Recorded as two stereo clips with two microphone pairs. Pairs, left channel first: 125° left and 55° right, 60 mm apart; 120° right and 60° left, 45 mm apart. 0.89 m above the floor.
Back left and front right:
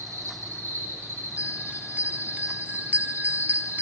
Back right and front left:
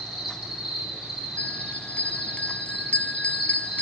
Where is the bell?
85° right, 0.6 m.